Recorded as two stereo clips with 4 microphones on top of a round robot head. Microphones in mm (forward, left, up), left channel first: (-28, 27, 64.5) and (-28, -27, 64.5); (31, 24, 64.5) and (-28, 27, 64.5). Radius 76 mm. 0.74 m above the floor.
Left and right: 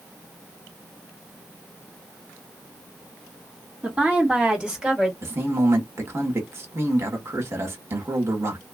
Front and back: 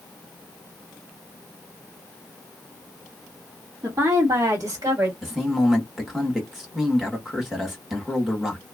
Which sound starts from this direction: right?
A man speaking, at 5.2 s.